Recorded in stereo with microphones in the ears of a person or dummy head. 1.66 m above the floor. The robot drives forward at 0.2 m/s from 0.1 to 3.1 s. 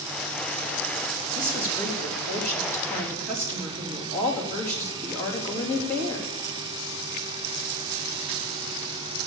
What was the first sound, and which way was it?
A woman speaking, 15° left (ahead or behind).